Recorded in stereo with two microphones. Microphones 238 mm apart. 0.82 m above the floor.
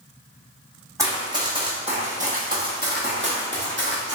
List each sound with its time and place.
1.0 s running footsteps: 10° right (ahead or behind), 1.7 m; by 4.2 s 50° right (ahead or behind), 1.4 m